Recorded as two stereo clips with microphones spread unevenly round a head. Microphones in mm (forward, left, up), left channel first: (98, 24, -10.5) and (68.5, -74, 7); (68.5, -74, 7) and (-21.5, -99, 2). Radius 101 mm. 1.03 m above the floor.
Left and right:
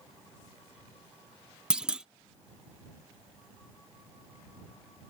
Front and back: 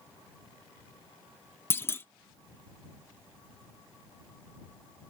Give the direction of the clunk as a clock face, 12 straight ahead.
1 o'clock.